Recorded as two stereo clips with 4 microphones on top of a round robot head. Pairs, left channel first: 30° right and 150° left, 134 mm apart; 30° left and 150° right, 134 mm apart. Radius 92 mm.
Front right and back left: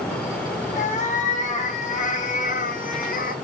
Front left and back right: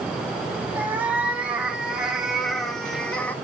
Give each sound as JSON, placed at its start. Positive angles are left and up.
{"t": 0.8, "sound": "a cat meowing", "azimuth_deg": -70, "distance_m": 2.5}